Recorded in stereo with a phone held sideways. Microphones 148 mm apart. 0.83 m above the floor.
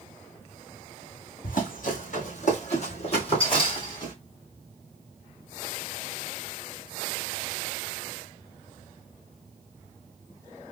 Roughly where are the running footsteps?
Left.